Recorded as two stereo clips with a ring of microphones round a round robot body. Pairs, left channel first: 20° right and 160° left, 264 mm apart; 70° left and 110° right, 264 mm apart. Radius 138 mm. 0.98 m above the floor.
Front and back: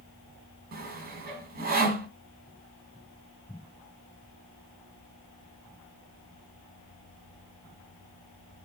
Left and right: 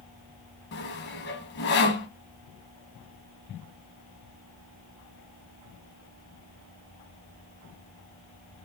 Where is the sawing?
105° left, 0.7 m.